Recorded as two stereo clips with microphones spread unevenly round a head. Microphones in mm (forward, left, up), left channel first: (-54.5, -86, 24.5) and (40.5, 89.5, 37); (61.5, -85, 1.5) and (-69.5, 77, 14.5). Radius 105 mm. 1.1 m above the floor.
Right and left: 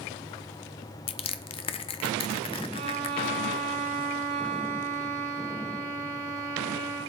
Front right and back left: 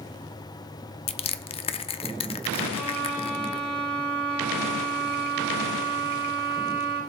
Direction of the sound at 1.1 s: 80° right.